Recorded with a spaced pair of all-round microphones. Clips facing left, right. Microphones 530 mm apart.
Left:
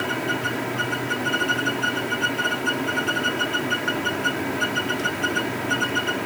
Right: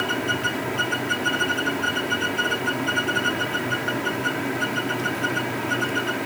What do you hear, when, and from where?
Only background noise.